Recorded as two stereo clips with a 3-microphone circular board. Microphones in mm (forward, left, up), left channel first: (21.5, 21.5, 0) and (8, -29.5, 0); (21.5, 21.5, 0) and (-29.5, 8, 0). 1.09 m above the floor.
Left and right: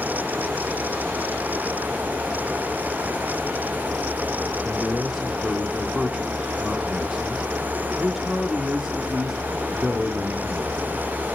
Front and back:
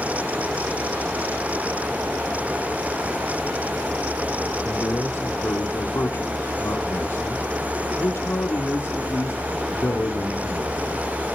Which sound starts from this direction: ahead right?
A man speaking, at 4.6 s.